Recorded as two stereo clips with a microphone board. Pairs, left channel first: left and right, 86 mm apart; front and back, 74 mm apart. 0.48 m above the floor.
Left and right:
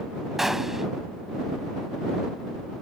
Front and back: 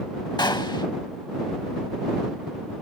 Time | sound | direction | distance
0.4 | a gunshot | 5° right | ?